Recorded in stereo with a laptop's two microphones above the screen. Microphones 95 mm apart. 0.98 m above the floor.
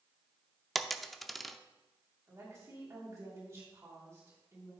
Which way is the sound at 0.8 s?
Centre (ahead or behind).